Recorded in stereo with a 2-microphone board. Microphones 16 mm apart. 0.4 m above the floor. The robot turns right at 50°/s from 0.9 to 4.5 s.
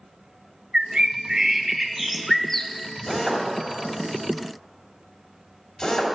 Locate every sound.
0.7 s a bird: 55° right, 0.5 m; by 2.7 s 35° left, 0.5 m
3.1 s a drill: 10° right (ahead or behind), 2.5 m; by 6.2 s 50° left (ahead or behind), 2.5 m